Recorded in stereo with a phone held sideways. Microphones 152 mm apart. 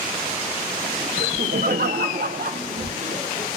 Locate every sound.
1.2 s laughter: 70° right (ahead or behind), 0.6 m; by 3.5 s 75° right (ahead or behind), 1.8 m